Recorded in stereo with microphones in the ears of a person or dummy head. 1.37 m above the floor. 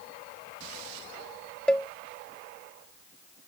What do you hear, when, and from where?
1.7 s a cowbell: 10° left (ahead or behind)